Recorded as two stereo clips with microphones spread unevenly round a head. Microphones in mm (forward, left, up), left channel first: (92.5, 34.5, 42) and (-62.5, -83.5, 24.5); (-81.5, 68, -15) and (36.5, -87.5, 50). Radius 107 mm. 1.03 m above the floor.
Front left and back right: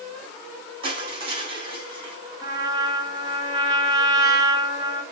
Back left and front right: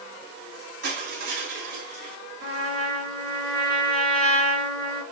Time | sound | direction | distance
0.8 | crushing | 80° right | 3.5 m
2.4 | a trumpet | 70° right | 1.9 m